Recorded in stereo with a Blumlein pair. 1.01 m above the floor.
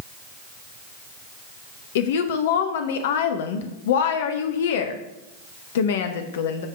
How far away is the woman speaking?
About 0.7 m.